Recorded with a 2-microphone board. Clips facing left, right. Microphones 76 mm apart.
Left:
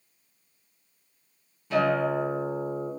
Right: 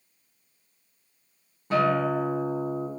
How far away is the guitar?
About 0.8 m.